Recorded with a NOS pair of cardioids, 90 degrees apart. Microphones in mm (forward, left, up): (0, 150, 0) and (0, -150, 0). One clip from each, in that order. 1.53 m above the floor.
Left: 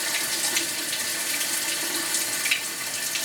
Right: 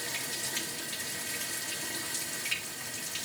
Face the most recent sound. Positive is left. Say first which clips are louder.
# left 9 dB
turn(degrees=60)